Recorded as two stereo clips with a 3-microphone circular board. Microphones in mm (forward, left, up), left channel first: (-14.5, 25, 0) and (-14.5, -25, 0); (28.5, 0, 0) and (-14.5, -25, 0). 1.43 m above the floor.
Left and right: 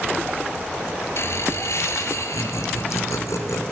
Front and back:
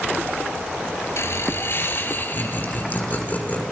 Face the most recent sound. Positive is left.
turn(degrees=85)